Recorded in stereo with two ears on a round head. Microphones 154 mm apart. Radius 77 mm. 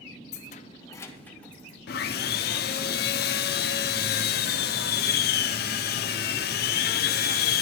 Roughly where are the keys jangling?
Left.